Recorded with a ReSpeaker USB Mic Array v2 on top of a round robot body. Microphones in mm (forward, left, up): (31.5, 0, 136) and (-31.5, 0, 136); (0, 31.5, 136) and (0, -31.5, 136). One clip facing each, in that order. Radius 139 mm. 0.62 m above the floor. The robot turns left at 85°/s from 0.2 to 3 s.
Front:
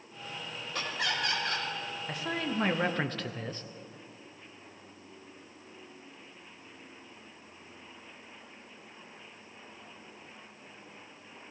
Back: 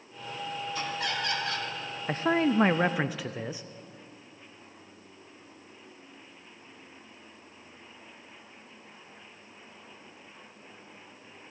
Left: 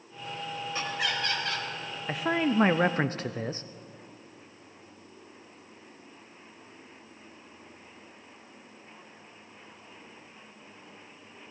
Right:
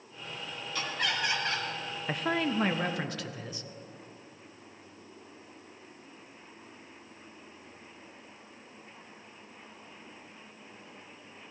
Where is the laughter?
30° left, 4.5 m; by 1.7 s 50° right, 4.5 m.